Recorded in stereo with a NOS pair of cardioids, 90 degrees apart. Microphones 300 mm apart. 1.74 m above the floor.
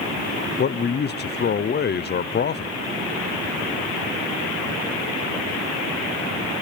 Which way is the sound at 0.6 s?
35° left.